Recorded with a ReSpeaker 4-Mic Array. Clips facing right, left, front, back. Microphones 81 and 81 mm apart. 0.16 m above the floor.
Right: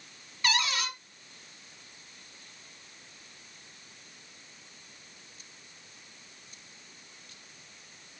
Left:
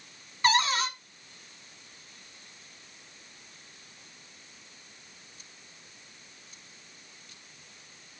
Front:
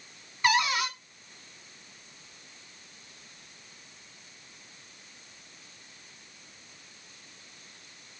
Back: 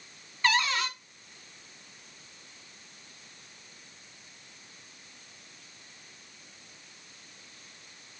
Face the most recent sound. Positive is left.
turn(degrees=65)